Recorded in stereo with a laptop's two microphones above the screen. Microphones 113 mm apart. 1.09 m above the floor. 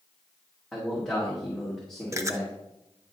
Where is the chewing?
25° right (ahead or behind), 0.7 m.